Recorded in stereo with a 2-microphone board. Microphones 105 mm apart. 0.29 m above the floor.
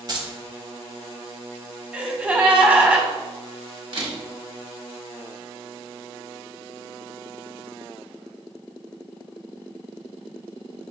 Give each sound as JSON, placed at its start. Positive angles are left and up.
{"t": 0.1, "sound": "keys jangling", "side_deg": -40, "distance_m": 1.0}
{"t": 1.9, "sound": "a gasp", "side_deg": -15, "distance_m": 0.7}
{"t": 3.9, "sound": "a camera shutter", "side_deg": -50, "distance_m": 1.2}